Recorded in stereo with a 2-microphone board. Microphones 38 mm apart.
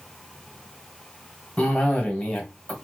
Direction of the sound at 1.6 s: 25° left (ahead or behind).